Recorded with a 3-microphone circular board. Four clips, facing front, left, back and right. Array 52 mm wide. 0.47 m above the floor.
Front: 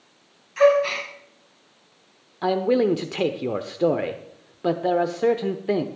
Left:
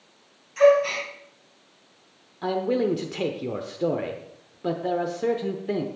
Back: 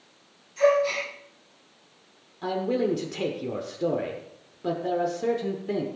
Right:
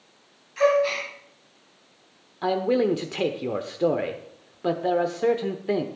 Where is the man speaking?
25° right, 0.9 m.